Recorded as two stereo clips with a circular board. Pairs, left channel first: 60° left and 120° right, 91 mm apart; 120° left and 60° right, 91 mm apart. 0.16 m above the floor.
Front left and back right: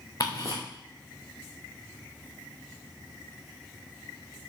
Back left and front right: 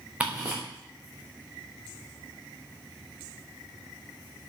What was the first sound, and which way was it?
Ticking, 15° left.